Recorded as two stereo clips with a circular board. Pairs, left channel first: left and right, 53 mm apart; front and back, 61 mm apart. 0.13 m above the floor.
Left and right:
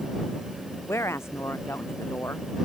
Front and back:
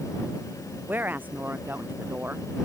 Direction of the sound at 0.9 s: 120° left.